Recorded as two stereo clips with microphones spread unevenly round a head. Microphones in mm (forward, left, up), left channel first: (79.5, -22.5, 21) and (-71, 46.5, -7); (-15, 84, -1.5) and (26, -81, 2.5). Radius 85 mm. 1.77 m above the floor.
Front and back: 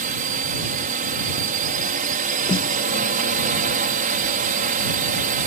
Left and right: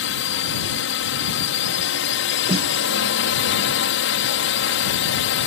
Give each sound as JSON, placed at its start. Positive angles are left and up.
{"t": 0.0, "sound": "a drone", "azimuth_deg": 115}
{"t": 2.5, "sound": "a snare drum", "azimuth_deg": -50}